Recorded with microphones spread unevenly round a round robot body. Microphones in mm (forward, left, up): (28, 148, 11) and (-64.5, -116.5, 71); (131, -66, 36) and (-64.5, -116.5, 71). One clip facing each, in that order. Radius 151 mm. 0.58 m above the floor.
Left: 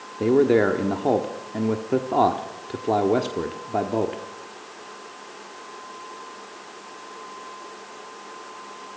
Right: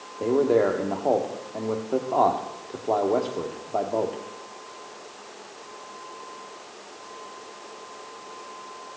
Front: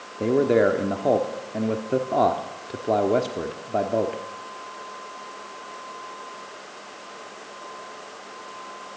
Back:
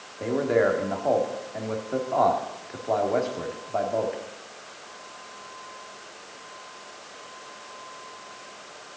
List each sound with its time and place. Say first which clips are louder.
0.2 s a man speaking: left 3 dB, front 4 dB; 45° left, 1.1 m